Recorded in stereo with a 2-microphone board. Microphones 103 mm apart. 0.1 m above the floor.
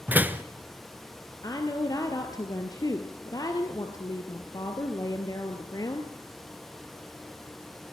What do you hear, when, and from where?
0.1 s a door slam: 20° right (ahead or behind), 0.9 m
1.4 s a woman speaking: 35° left (ahead or behind), 1.6 m